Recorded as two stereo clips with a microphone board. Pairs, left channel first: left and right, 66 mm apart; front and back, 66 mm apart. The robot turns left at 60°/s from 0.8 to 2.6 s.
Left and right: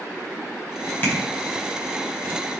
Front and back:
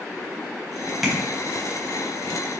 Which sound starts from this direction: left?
Tapping, at 1.0 s.